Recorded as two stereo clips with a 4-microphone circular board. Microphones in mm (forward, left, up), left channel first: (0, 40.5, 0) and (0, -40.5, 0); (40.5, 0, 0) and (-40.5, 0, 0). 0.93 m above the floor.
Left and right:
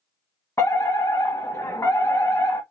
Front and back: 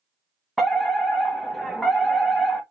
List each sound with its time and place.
0.6 s a fire alarm: 85° left, 1.4 m